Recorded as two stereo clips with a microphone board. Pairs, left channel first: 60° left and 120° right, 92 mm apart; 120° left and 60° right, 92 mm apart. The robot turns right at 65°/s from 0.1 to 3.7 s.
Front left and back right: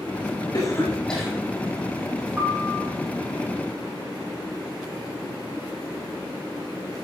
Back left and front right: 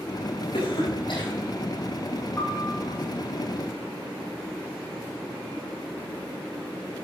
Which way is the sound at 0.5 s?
105° left.